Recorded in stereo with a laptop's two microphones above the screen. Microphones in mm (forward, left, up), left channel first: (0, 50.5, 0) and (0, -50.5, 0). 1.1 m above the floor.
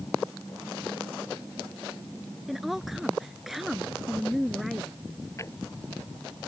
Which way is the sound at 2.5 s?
5° right (ahead or behind).